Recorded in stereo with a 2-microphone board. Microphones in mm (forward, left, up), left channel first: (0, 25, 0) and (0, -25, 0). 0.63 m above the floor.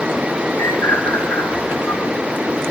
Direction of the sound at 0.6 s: 65° left (ahead or behind).